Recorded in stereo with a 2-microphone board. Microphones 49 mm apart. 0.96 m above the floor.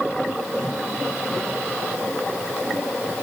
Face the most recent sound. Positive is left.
No sound to turn to.